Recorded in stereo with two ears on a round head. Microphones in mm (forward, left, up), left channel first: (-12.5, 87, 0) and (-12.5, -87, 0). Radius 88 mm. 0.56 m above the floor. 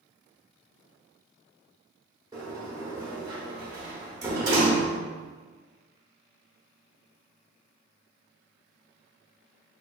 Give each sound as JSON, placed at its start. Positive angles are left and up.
{"t": 2.3, "sound": "a sliding door", "side_deg": -20, "distance_m": 0.7}